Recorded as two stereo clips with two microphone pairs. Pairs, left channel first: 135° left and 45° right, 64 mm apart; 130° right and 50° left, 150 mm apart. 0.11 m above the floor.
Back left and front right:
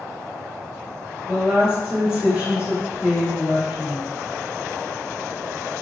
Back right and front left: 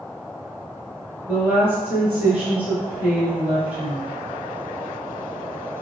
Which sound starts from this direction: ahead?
A woman speaking, at 1.3 s.